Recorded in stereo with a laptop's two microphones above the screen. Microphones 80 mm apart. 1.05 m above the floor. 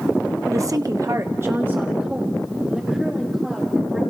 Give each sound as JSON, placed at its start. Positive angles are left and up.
{"t": 0.5, "sound": "a woman speaking", "side_deg": -40, "distance_m": 1.1}